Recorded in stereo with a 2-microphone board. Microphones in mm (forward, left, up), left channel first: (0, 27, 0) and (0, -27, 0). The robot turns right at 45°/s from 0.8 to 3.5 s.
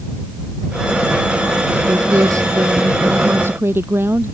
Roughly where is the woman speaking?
Behind right.